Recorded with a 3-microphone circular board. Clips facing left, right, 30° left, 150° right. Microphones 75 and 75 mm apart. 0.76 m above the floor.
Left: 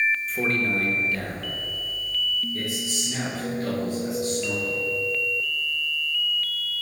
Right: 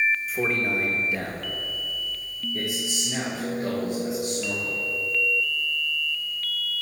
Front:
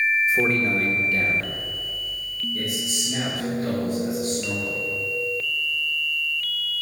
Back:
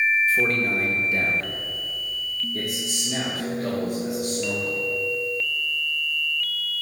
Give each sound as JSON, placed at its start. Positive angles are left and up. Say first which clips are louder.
{"t": 0.3, "sound": "a man speaking", "louder": "left 1 dB, front 1 dB", "azimuth_deg": -10, "distance_m": 1.0}